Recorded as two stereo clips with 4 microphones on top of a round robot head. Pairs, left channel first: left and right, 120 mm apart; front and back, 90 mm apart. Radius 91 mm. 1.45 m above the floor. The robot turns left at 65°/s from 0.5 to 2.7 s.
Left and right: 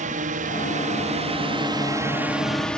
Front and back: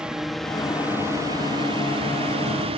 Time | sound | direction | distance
0.0 | a drone | 100° right | ?